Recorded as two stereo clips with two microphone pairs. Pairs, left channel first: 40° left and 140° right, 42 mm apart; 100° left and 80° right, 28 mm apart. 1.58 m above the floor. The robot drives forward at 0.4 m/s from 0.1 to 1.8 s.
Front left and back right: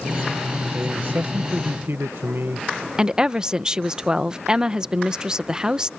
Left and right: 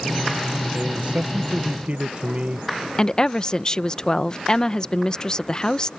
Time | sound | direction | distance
0.7 | a man speaking | 100° right | ?
3.0 | a woman speaking | 155° left | ?